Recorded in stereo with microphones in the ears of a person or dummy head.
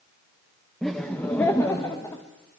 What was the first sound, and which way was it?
Laughter, centre (ahead or behind).